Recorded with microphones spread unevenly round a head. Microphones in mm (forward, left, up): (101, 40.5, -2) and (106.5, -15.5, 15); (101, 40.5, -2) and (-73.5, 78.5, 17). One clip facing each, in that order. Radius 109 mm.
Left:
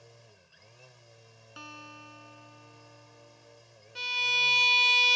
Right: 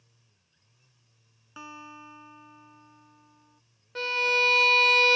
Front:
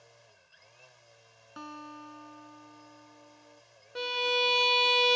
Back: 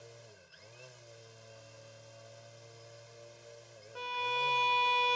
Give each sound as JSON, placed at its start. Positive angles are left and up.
{"t": 0.0, "sound": "a machine running", "azimuth_deg": 130}
{"t": 1.6, "sound": "a guitar", "azimuth_deg": -20}
{"t": 4.0, "sound": "a violin", "azimuth_deg": -70}